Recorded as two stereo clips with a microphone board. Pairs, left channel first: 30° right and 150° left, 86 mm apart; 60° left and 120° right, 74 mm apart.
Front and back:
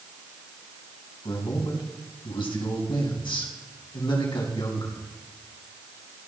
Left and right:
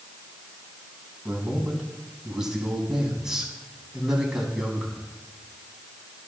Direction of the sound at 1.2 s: 40° right.